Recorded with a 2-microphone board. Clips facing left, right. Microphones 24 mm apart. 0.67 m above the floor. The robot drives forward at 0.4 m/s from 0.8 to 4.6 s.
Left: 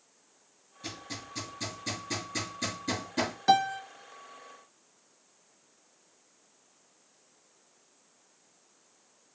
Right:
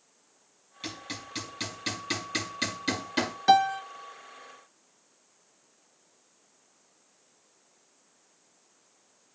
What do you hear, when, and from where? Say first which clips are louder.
0.8 s hammering: right 2 dB; 85° right, 7 m; by 3.3 s 75° right (ahead or behind), 7 m
3.5 s a piano: right 4 dB; 15° right (ahead or behind), 0.6 m